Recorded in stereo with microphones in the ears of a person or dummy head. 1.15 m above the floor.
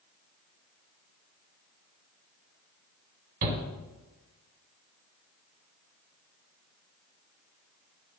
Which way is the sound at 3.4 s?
45° right (ahead or behind).